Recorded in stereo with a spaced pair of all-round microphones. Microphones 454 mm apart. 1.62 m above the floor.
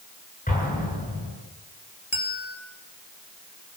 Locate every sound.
0.5 s an explosion: 20° left (ahead or behind), 8 m
2.1 s a bell: 85° left, 3.5 m